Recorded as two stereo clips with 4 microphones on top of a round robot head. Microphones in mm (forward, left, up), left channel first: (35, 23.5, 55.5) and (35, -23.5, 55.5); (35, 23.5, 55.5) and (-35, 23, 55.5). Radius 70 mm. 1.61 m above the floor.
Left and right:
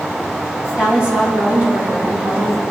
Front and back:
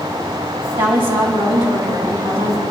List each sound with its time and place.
0.8 s a woman speaking: 155° right, 3.5 m